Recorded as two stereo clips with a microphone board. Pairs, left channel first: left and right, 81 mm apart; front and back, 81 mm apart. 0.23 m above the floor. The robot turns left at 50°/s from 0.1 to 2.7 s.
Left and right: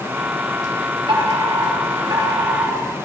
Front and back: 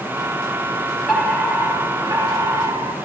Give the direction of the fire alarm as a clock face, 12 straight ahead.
3 o'clock.